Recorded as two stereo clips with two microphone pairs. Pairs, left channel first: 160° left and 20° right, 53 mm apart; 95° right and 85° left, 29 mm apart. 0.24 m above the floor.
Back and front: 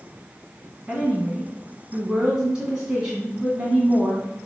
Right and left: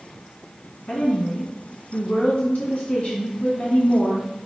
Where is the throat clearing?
I don't hear throat clearing.